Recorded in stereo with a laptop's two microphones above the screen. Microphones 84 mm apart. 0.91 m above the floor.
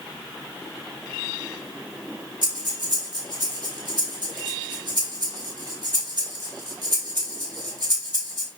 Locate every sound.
2.4 s breathing: 55° right (ahead or behind), 2.5 m